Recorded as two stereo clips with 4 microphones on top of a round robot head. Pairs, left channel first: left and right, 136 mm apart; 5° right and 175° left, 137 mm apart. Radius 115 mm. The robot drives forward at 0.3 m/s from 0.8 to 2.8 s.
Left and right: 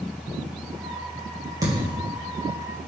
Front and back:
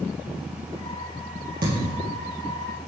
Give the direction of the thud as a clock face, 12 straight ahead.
5 o'clock.